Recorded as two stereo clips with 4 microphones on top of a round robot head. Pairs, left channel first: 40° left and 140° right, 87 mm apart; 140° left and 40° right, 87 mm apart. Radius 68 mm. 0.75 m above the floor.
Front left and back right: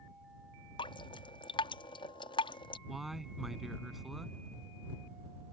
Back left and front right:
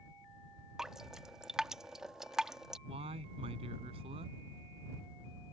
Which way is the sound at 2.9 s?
50° right.